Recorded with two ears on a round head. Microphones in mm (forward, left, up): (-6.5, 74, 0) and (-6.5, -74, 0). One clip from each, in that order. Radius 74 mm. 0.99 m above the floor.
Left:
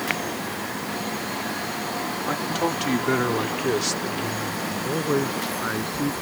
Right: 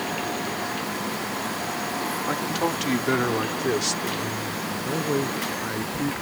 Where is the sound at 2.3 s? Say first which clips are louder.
Left 1 dB; 5° right (ahead or behind); by 4.6 s 10° right (ahead or behind).